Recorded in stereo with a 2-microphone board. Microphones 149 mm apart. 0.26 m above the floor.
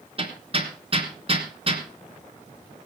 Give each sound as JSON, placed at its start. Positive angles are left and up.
{"t": 0.2, "sound": "hammering", "side_deg": -40, "distance_m": 3.0}